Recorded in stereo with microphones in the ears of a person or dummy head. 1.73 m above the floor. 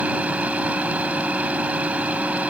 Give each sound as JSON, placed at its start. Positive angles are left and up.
{"t": 0.0, "sound": "a machine running", "side_deg": -5}